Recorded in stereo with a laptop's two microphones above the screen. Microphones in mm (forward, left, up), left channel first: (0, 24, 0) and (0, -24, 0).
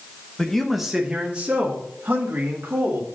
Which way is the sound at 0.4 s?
15° left (ahead or behind).